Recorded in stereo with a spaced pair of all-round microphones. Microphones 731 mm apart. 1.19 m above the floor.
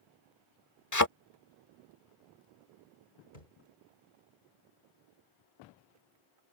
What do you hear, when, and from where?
0.9 s a thud: 25° left (ahead or behind)
3.3 s a thud: 75° left (ahead or behind)